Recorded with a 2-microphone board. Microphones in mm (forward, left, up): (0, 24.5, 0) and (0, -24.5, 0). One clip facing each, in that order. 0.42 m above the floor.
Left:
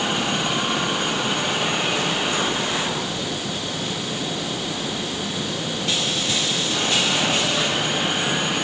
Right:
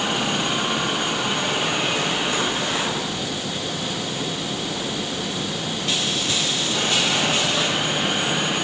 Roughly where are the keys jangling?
I don't hear keys jangling.